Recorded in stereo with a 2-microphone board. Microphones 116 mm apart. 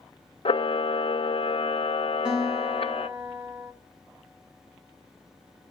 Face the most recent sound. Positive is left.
turn(degrees=-5)  # may be behind; listen again after turning